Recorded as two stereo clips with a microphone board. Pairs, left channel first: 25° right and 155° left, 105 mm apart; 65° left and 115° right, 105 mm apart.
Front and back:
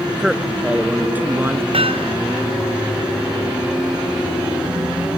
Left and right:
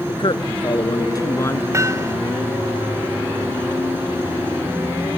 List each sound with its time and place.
0.1 s a man speaking: 70° left; by 1.6 s 110° left
1.7 s hammering: 175° right